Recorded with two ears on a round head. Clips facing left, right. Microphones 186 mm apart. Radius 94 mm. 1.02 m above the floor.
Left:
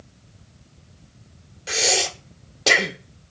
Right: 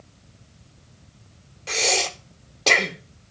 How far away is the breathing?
About 0.7 m.